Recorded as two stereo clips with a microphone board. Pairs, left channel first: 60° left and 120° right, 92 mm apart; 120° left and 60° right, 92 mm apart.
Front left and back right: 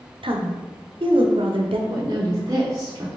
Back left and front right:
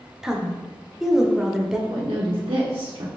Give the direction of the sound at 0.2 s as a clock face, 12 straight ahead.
5 o'clock.